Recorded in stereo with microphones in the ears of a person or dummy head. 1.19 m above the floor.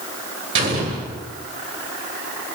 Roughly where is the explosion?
Right.